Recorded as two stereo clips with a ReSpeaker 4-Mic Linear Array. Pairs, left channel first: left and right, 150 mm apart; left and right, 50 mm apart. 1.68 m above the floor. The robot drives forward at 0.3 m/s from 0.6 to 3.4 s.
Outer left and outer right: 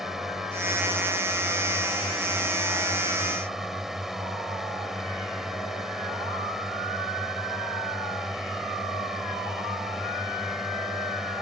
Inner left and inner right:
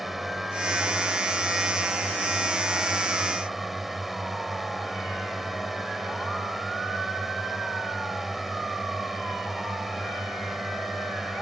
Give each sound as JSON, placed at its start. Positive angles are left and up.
{"t": 0.0, "sound": "a drone", "side_deg": -5}